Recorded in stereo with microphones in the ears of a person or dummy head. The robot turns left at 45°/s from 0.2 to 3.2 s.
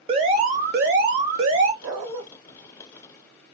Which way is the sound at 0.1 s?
30° right.